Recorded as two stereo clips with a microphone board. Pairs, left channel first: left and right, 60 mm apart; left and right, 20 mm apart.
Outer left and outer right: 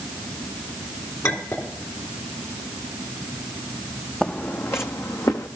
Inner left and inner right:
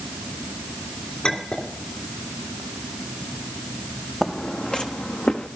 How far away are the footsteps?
About 0.7 m.